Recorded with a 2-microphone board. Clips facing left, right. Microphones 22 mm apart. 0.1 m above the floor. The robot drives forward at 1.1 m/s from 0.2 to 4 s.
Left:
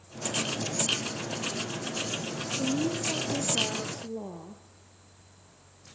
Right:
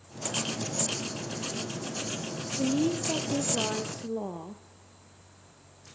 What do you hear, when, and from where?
2.6 s a woman speaking: 25° right (ahead or behind), 3 m; by 4.6 s 35° right (ahead or behind), 2 m